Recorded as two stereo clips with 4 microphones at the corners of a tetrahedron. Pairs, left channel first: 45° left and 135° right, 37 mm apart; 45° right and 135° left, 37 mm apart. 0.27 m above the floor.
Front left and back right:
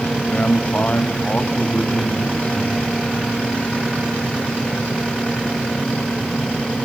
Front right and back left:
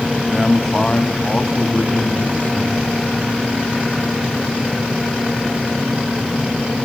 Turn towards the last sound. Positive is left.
turn(degrees=-10)